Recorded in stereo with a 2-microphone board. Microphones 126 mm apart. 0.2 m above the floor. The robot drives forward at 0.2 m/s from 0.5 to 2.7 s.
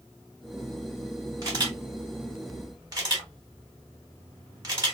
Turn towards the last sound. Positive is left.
turn(degrees=-30)  # may be behind; listen again after turning